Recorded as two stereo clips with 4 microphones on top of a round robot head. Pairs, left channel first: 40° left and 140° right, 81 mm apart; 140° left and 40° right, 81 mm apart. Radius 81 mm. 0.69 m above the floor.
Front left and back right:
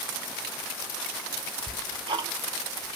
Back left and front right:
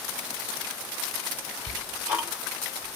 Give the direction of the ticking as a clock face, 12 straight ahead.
4 o'clock.